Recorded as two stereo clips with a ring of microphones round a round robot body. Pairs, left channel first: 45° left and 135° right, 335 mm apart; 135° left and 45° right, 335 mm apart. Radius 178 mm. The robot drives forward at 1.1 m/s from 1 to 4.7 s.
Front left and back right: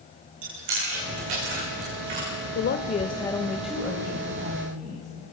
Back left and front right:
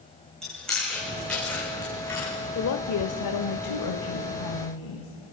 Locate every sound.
0.4 s chewing: 135° right, 7.5 m; by 2.3 s 145° right, 9 m
2.5 s a woman speaking: 90° left, 1.3 m; by 5.1 s 155° left, 2.5 m